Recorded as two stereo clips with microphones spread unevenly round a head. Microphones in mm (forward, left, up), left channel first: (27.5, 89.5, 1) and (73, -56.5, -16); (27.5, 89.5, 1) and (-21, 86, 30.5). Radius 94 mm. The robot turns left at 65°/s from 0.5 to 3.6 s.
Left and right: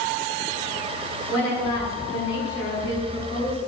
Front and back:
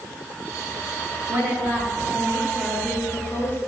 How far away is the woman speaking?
About 8.5 m.